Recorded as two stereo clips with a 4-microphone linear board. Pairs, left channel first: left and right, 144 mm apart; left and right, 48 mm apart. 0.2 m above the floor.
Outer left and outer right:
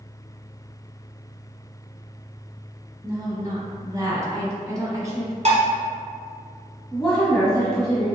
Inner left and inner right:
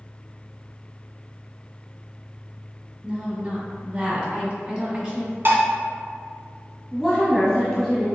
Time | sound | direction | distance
3.0 | a woman speaking | 25° right (ahead or behind) | 1.1 m
5.5 | dishes clattering | 50° right (ahead or behind) | 1.1 m
6.9 | a woman speaking | 5° left (ahead or behind) | 1.3 m